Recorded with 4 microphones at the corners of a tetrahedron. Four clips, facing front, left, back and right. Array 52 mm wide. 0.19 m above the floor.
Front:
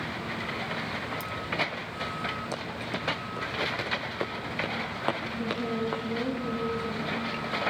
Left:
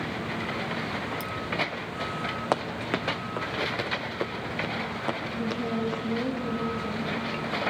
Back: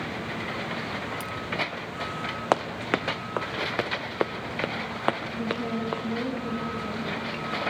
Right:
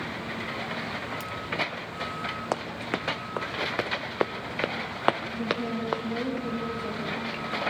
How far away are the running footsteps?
About 1.0 m.